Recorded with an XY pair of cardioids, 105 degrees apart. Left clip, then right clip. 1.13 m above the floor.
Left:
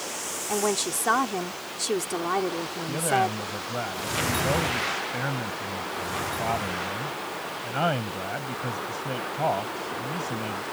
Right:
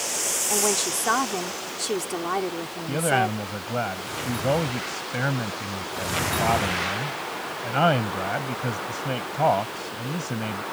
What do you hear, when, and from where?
0.5 s a woman speaking: 10° left
2.9 s a man speaking: 30° right